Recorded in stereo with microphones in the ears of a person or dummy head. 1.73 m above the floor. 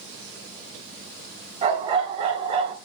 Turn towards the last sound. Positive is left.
turn(degrees=-25)  # may be behind; listen again after turning